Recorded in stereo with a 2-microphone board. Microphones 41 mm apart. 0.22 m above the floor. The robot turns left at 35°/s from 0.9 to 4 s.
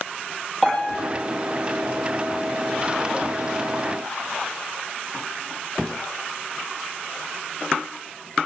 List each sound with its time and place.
0.6 s a piano: centre (ahead or behind), 6.5 m; by 1.0 s 5° left (ahead or behind), 6.5 m